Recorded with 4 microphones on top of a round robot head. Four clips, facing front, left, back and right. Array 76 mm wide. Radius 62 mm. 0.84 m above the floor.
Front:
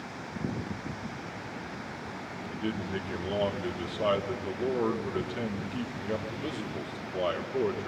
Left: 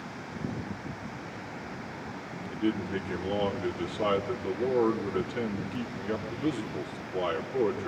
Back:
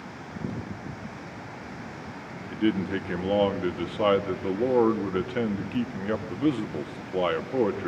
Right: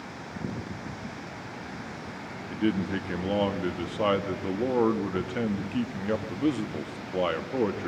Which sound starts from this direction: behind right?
A man speaking, at 2.5 s.